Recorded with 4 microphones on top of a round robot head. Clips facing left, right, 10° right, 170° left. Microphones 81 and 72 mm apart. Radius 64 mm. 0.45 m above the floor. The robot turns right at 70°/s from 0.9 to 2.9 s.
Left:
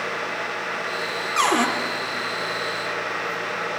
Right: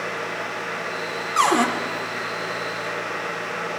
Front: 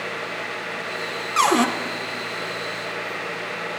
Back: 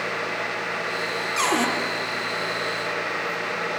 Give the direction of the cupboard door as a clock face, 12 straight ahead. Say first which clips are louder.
Right 2 dB, front 5 dB; 1 o'clock.